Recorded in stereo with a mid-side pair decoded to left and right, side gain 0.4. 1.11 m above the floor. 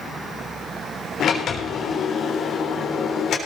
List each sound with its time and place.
1.2 s a sliding door: 65° left, 3.5 m